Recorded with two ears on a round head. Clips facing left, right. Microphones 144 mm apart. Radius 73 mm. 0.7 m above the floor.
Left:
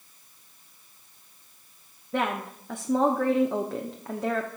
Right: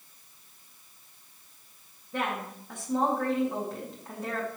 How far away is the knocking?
I don't hear knocking.